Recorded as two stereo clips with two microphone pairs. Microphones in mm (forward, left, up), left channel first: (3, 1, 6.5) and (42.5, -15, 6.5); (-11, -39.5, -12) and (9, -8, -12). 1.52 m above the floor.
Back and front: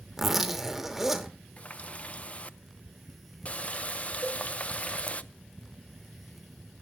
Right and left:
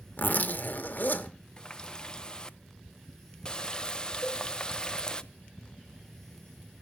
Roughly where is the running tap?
Behind.